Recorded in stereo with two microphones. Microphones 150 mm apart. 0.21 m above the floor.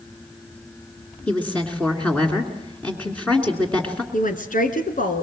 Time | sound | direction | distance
1.3 | a woman speaking | 10° left (ahead or behind) | 2.5 m
4.1 | a woman speaking | 65° left (ahead or behind) | 2.5 m